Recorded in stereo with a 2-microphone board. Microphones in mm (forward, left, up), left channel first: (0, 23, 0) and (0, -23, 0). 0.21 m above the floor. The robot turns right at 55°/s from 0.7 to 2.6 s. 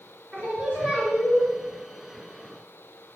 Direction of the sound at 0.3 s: 35° right.